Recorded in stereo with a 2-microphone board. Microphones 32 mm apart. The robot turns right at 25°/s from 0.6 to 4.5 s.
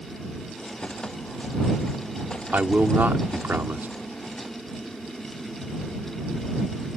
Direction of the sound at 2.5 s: 120° right.